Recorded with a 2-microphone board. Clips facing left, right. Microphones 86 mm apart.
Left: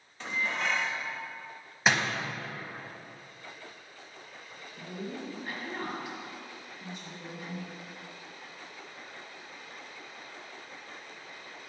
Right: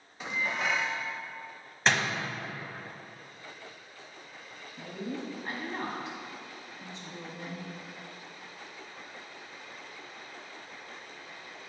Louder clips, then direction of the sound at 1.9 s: Left 1 dB; 10° left (ahead or behind).